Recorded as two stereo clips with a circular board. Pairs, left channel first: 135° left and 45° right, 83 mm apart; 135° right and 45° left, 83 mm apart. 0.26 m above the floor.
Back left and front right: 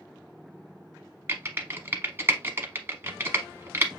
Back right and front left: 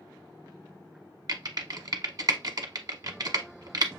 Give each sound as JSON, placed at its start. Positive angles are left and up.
{"t": 1.3, "sound": "typing on a keyboard", "azimuth_deg": 15, "distance_m": 0.7}